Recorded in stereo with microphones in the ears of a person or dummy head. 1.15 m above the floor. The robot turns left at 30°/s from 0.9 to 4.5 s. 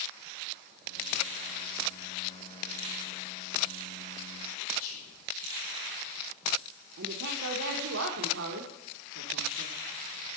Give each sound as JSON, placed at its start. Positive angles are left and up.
{"t": 4.8, "sound": "whispering", "side_deg": 50, "distance_m": 5.0}
{"t": 7.0, "sound": "a woman speaking", "side_deg": -70, "distance_m": 0.8}